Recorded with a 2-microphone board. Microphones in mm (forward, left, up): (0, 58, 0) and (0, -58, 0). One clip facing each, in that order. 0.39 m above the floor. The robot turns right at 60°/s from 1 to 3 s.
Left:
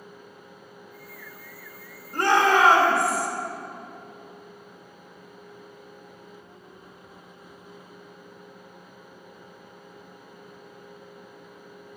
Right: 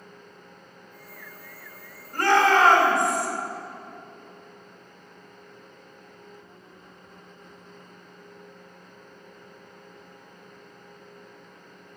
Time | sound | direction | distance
2.1 | a shout | 20° left (ahead or behind) | 1.1 m